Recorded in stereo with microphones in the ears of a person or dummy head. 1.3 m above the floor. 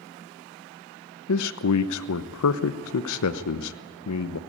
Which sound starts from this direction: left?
A man speaking, at 1.3 s.